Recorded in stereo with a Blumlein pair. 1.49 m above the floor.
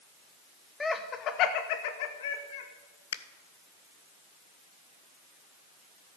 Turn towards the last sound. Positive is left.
turn(degrees=60)